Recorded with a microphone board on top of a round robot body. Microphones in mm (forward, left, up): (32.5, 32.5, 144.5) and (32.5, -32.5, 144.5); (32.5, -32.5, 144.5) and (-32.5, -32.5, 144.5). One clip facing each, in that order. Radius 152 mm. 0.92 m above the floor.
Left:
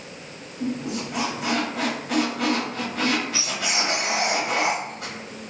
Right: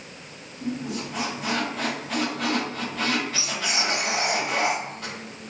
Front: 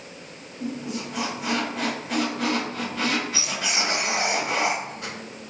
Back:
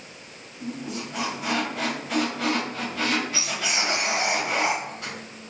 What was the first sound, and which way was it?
A squeak, 70° left.